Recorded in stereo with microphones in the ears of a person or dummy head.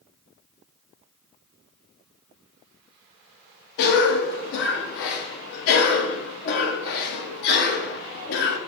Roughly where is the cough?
Left.